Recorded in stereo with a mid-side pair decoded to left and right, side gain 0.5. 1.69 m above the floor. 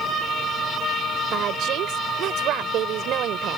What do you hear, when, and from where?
1.3 s a woman speaking: 70° right